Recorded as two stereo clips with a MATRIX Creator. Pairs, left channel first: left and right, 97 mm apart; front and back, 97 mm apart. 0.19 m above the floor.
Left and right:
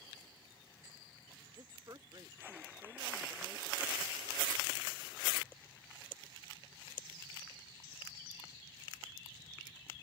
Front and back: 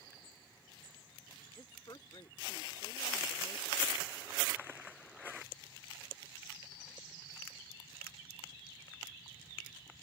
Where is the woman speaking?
40° right.